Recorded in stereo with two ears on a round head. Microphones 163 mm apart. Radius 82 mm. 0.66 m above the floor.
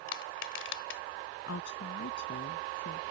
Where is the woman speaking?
75° left (ahead or behind).